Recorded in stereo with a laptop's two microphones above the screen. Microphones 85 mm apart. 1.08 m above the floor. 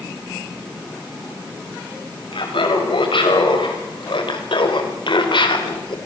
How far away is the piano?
No piano in this recording.